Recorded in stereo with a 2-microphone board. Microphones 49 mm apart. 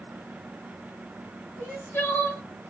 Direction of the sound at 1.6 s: 55° left (ahead or behind).